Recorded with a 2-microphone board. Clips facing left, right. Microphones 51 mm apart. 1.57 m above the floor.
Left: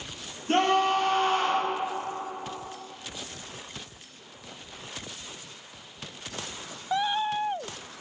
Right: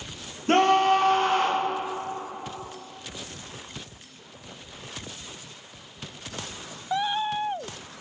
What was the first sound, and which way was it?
A scream, 70° right (ahead or behind).